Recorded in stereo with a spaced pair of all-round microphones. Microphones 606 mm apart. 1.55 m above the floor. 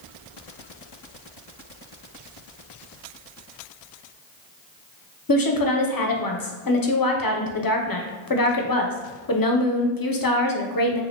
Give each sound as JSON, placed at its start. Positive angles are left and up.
{"t": 5.3, "sound": "a woman speaking", "side_deg": 35, "distance_m": 0.6}